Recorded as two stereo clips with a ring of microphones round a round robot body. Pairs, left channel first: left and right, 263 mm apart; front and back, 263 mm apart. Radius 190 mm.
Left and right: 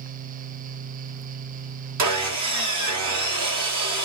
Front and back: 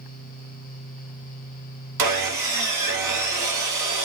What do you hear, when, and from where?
2.0 s sawing: 140° right, 0.8 m